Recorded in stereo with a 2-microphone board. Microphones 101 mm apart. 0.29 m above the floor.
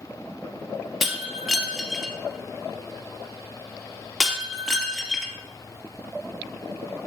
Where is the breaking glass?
5° right (ahead or behind), 2 m.